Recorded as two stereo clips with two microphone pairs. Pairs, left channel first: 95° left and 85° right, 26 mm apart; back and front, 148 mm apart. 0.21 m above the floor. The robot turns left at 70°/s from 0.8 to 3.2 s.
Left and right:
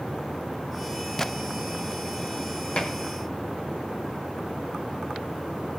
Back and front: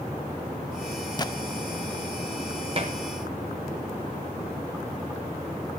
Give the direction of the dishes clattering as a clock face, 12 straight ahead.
10 o'clock.